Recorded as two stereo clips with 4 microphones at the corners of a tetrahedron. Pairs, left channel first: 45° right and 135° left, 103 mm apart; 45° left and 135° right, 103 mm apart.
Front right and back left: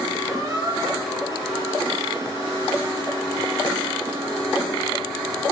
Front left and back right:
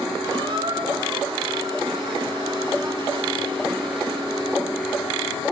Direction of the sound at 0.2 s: 170° right.